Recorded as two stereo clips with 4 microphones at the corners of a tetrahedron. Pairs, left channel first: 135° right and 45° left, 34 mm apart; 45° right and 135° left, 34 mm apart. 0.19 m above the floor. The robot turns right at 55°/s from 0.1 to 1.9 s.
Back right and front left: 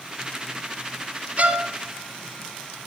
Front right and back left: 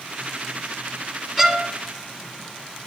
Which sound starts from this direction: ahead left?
A violin, at 1.4 s.